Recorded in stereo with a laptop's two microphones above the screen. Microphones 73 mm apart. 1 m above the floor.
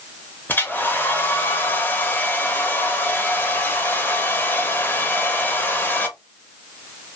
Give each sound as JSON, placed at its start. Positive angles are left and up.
{"t": 0.5, "sound": "a hair dryer", "side_deg": 25, "distance_m": 0.8}